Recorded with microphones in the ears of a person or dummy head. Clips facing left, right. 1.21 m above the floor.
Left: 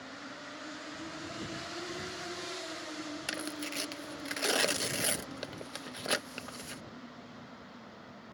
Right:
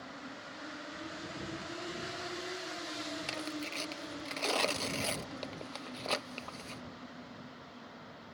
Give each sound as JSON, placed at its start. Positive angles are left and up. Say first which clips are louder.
{"t": 3.3, "sound": "tearing paper", "louder": "left 1 dB", "side_deg": 20}